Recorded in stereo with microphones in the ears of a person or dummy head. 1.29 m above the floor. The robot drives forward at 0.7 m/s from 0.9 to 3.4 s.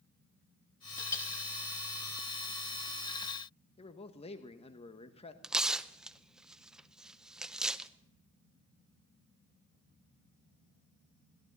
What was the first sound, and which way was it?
A clink, 20° left (ahead or behind).